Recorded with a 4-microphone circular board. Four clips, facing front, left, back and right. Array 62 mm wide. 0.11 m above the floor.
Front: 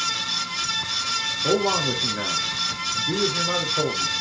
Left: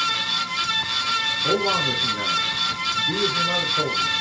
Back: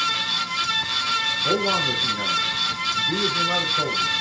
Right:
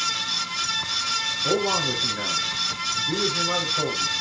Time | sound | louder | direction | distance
1.4 | a man speaking | left 1 dB, front 2 dB | 15° left | 4 m